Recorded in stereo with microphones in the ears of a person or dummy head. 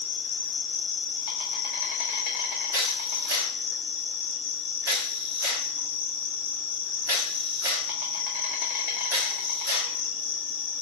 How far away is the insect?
About 0.9 m.